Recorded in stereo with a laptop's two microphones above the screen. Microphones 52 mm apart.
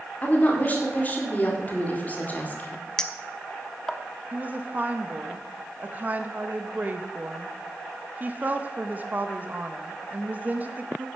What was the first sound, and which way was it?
A woman speaking, 30° left (ahead or behind).